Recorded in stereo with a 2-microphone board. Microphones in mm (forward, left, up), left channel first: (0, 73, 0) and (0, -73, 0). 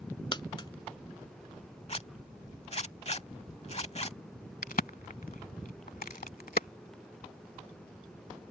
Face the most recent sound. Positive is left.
turn(degrees=75)  # may be behind; listen again after turning